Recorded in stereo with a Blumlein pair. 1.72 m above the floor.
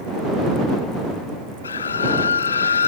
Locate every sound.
1.6 s a scream: 70° left